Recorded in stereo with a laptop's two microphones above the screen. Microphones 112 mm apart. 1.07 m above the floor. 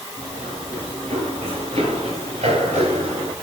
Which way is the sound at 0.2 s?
85° right.